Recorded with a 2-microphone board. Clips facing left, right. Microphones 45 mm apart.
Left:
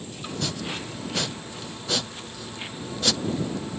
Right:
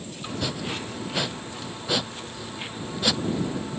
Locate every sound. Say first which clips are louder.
0.2 s chopping: right 1 dB; 10° right (ahead or behind)